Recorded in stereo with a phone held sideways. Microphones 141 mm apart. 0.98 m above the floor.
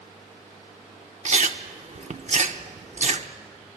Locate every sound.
1.2 s chewing: 55° right (ahead or behind), 0.8 m